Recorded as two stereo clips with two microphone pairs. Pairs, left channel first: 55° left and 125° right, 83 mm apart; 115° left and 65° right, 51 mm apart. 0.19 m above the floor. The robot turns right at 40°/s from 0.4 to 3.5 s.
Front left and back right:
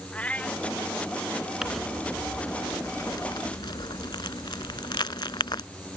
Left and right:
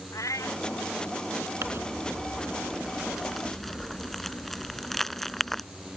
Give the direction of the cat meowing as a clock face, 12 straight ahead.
8 o'clock.